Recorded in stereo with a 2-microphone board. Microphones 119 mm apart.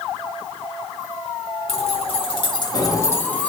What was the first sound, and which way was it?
Keys jangling, 55° left (ahead or behind).